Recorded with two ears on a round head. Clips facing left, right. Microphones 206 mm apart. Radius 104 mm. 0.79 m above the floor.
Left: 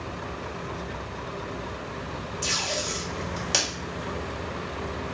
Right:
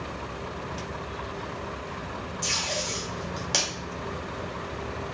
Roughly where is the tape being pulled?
Centre.